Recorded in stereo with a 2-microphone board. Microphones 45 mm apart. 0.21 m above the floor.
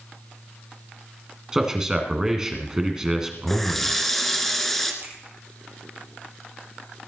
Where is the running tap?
5° left (ahead or behind), 1.9 m.